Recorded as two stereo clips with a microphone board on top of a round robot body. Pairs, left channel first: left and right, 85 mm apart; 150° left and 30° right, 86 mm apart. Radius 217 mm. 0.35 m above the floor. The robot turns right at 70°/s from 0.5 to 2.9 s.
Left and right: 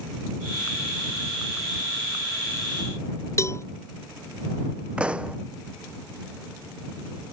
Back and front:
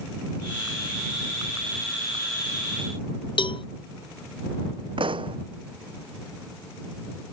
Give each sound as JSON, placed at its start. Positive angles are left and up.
{"t": 3.4, "sound": "a cowbell", "azimuth_deg": 145}
{"t": 5.0, "sound": "a pop", "azimuth_deg": -10}